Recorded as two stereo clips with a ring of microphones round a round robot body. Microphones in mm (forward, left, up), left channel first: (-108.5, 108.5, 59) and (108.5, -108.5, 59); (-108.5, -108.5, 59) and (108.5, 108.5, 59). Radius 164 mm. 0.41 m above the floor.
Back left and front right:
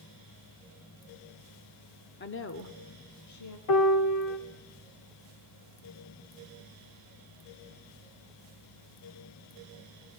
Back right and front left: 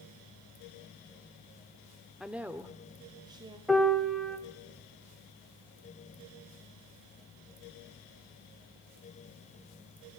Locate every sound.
2.2 s a woman speaking: 135° left, 1.0 m; by 3.6 s 120° left, 1.9 m
3.7 s a piano: 135° left, 1.8 m